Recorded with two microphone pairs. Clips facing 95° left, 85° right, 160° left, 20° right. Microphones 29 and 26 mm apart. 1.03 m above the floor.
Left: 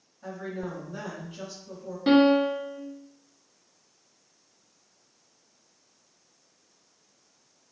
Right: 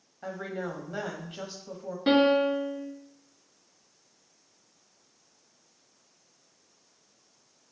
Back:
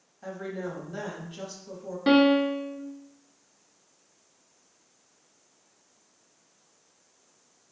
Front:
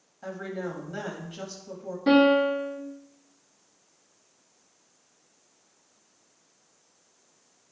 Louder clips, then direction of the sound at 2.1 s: Left 2 dB, front 1 dB; 170° right.